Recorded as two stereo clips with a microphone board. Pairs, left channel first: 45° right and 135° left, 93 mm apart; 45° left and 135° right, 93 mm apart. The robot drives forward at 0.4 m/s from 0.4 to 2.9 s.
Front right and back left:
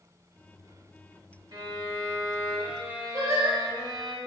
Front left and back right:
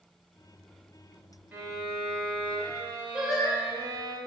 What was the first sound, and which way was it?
A violin, 165° left.